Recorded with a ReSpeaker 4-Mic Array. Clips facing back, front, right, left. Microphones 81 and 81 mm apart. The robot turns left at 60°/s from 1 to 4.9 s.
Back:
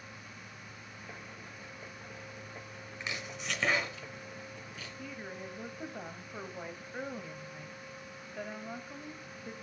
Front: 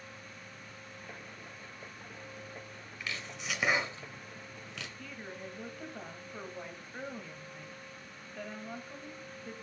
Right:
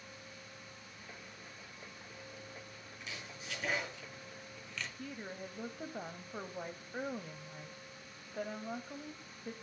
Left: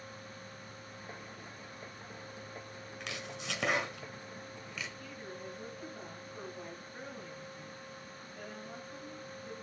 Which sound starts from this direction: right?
A woman speaking, at 5.0 s.